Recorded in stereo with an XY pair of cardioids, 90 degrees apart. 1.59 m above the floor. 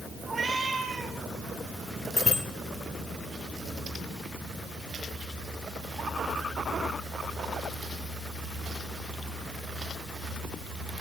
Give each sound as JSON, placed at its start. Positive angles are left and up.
{"t": 0.3, "sound": "a cat meowing", "azimuth_deg": -40, "distance_m": 4.0}
{"t": 2.2, "sound": "a bicycle bell", "azimuth_deg": 30, "distance_m": 4.0}